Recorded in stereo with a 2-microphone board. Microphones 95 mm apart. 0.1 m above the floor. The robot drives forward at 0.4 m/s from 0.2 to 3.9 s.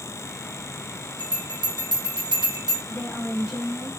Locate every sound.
1.2 s a bell: 50° right (ahead or behind), 1.7 m; by 2.8 s 45° right (ahead or behind), 1.8 m
2.9 s a woman speaking: centre (ahead or behind), 1.1 m